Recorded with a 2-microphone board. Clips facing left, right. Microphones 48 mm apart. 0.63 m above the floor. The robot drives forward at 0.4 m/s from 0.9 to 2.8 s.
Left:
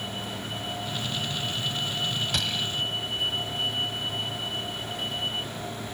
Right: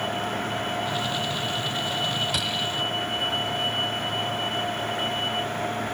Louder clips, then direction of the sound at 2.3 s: Right 2 dB; 5° right (ahead or behind).